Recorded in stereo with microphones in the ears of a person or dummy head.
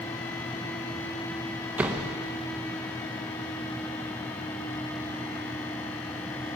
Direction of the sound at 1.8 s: 10° right (ahead or behind).